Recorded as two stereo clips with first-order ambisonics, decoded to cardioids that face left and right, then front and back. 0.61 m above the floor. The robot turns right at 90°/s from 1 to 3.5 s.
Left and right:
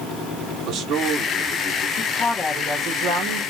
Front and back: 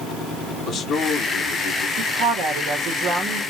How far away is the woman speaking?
About 1.4 m.